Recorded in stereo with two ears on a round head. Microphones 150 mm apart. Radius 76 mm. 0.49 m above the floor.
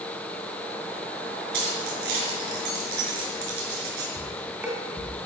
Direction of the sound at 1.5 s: 65° right (ahead or behind).